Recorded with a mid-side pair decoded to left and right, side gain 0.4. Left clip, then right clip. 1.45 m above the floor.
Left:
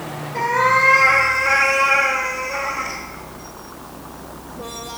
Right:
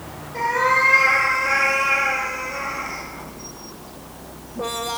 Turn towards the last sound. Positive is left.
turn(degrees=60)